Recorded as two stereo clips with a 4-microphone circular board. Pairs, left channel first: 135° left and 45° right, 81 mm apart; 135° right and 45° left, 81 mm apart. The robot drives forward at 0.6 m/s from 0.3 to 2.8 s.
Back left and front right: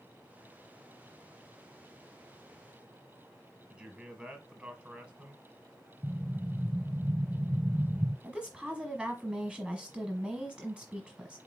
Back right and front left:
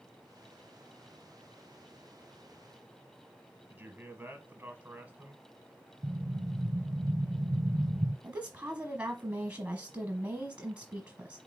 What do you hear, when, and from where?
3.7 s a man speaking: 5° left, 1.0 m
6.0 s an explosion: 25° left, 0.6 m
8.2 s a woman speaking: 10° left, 1.0 m